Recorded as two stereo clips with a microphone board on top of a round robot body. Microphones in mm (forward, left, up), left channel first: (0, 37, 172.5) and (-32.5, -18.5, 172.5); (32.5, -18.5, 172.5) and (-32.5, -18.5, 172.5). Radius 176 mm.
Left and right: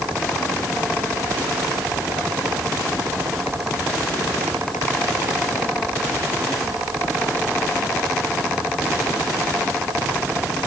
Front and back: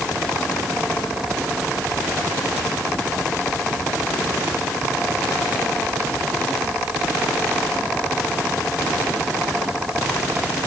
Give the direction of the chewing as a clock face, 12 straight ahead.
I don't hear chewing.